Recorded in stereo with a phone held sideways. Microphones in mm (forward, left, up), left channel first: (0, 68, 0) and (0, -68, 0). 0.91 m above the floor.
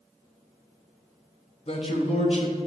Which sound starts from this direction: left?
A man speaking, at 1.7 s.